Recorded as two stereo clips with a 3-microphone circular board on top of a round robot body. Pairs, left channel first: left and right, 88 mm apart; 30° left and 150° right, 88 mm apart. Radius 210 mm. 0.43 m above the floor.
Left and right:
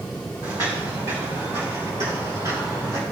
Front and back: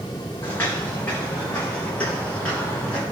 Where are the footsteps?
35° right, 2.5 m; by 3.0 s 45° right, 6 m.